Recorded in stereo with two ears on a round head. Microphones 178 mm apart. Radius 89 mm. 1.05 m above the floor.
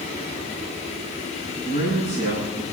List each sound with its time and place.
1.6 s a man speaking: 35° right (ahead or behind), 8.5 m